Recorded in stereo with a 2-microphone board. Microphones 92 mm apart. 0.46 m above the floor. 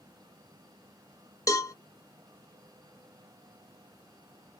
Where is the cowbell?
35° left (ahead or behind), 0.6 m.